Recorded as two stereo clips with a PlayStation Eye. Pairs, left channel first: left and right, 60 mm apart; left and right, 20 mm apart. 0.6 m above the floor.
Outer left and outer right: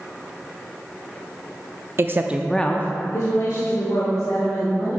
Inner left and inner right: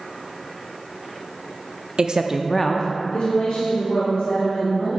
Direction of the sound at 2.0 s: 45° right (ahead or behind).